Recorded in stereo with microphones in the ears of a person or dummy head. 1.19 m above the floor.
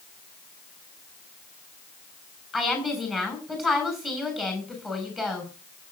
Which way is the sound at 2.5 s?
Centre (ahead or behind).